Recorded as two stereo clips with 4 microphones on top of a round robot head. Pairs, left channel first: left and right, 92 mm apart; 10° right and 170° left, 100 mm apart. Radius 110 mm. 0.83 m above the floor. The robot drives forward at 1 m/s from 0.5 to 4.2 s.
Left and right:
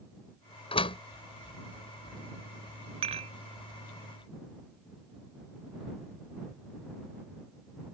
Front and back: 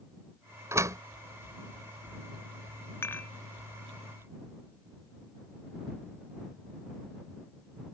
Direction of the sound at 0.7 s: 110° left.